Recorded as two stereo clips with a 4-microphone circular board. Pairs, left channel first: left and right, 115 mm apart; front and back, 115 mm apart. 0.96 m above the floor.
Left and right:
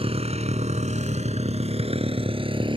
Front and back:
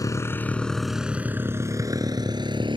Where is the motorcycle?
60° right; by 2.8 s 135° right.